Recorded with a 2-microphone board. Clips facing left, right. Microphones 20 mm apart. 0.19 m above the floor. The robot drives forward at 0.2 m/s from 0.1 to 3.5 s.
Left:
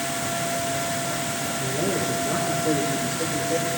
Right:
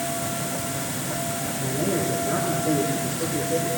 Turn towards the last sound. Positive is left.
turn(degrees=25)  # may be behind; listen again after turning